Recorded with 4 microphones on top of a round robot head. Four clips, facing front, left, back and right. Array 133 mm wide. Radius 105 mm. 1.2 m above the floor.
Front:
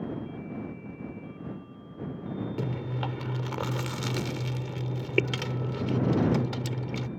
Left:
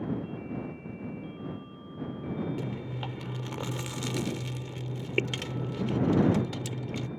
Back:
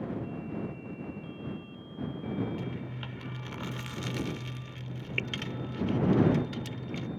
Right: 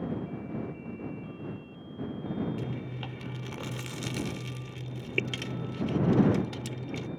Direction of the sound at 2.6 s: 10° left.